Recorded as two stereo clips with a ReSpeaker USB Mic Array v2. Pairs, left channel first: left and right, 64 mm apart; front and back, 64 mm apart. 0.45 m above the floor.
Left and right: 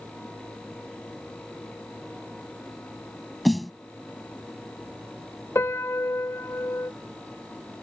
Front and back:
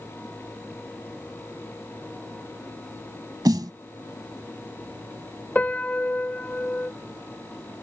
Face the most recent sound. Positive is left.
turn(degrees=60)